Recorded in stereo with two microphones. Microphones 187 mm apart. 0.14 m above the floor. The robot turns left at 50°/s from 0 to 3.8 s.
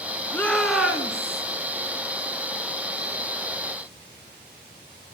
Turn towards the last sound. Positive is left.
turn(degrees=-155)